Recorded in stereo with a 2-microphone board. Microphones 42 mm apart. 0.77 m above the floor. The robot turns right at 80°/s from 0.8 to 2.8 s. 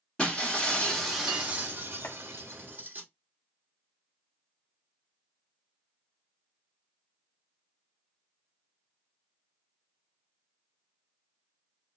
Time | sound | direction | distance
0.2 | breaking glass | 160° left | 1.8 m
2.0 | chopping | 65° left (ahead or behind) | 1.1 m